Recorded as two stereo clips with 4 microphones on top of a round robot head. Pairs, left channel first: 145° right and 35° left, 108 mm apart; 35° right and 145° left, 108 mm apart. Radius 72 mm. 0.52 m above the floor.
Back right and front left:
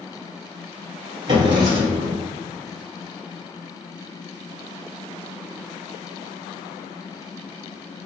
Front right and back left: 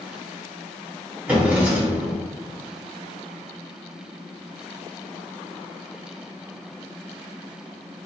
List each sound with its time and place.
1.3 s a drawer: 70° left, 1.1 m